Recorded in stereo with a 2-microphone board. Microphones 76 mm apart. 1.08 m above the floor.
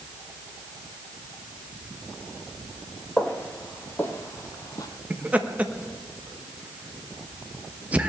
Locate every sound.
3.2 s footsteps: 15° left (ahead or behind), 2.5 m; by 4.9 s 50° left (ahead or behind), 1.7 m
5.1 s laughter: 20° right (ahead or behind), 1.5 m